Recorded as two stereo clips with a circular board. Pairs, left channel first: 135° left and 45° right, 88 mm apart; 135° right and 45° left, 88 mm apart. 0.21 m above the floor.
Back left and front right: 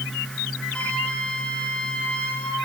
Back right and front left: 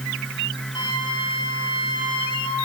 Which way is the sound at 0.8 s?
150° right.